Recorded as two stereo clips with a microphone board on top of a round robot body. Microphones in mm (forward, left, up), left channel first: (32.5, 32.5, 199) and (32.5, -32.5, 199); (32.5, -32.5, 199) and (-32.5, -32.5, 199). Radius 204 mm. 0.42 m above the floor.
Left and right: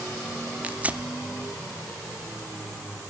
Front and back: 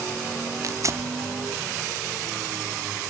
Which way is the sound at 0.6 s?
155° right.